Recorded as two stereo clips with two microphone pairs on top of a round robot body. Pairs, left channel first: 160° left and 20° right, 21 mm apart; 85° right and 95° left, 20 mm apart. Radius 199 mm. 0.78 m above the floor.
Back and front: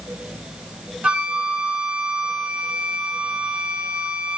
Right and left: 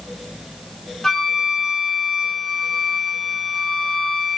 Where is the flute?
10° right, 2.5 m.